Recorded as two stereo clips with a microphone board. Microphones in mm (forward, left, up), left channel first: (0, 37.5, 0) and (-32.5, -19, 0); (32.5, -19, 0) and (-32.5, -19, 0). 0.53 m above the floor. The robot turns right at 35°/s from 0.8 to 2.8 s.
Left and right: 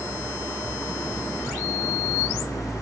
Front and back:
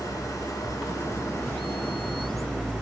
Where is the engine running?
15° left, 3.5 m; by 2.8 s 85° left, 3.5 m.